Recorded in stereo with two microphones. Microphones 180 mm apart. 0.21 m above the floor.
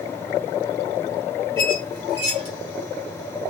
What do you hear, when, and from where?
1.6 s a squeak: 35° right (ahead or behind), 1.2 m